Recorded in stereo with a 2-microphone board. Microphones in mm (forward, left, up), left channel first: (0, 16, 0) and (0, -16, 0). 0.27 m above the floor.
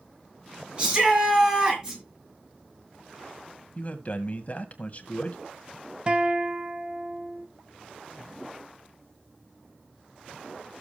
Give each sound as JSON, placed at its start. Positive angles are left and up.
{"t": 0.8, "sound": "a shout", "side_deg": -30, "distance_m": 5.5}
{"t": 3.8, "sound": "a man speaking", "side_deg": 45, "distance_m": 1.7}
{"t": 6.1, "sound": "a guitar", "side_deg": -35, "distance_m": 1.1}